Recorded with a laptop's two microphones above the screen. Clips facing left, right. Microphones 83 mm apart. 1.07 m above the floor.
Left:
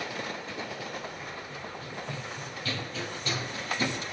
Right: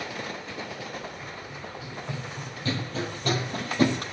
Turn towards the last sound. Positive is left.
turn(degrees=-60)  # may be behind; listen again after turning